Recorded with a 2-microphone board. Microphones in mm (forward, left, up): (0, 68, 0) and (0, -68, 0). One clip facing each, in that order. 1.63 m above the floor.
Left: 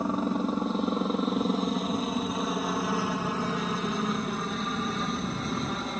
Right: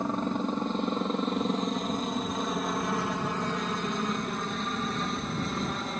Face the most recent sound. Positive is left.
turn(degrees=0)  # may be behind; listen again after turning